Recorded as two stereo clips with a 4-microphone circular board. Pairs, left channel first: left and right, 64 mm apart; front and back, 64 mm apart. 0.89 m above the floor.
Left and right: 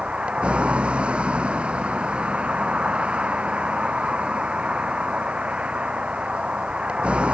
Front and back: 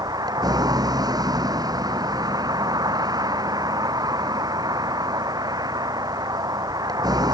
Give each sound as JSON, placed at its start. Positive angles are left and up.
{"t": 0.0, "sound": "a vehicle", "azimuth_deg": -165}